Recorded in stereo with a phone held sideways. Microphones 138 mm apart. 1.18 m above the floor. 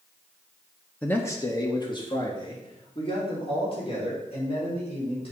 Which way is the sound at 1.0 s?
10° left (ahead or behind).